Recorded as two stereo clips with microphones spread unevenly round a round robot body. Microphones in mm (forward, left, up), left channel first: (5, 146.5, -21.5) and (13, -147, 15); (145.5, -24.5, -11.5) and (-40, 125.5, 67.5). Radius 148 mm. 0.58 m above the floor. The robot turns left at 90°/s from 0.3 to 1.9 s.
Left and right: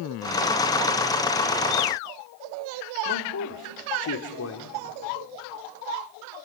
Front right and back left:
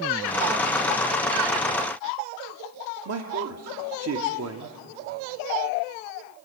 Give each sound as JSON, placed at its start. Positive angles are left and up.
{"t": 3.0, "sound": "a man speaking", "azimuth_deg": 110, "distance_m": 1.4}